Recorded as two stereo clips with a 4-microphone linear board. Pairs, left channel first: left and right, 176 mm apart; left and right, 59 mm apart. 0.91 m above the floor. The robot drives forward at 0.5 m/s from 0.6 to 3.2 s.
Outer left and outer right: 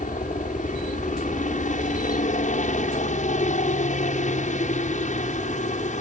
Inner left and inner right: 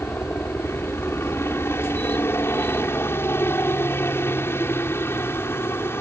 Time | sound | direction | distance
0.0 | a helicopter | 45° left (ahead or behind) | ?